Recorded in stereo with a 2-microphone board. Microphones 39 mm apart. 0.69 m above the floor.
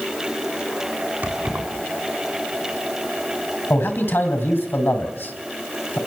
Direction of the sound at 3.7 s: 70° left (ahead or behind).